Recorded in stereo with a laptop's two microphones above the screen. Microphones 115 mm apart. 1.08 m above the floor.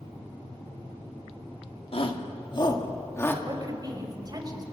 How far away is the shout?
About 2.5 m.